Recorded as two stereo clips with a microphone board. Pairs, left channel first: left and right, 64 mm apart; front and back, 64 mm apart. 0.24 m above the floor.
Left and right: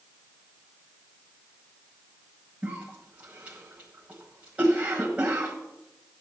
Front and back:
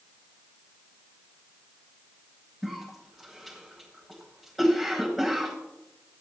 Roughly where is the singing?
No singing in this recording.